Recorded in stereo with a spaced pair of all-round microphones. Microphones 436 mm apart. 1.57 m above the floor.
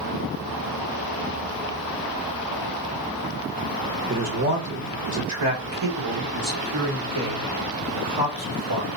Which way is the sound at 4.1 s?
30° right (ahead or behind).